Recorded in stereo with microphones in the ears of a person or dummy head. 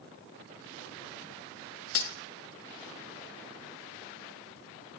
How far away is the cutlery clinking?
About 0.6 m.